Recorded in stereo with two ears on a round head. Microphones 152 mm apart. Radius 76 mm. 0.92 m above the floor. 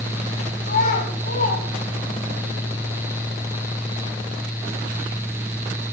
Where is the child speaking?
50° left (ahead or behind), 5.5 m.